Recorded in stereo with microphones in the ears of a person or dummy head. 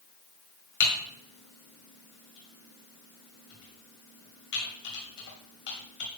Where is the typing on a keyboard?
60° left (ahead or behind), 2.0 m.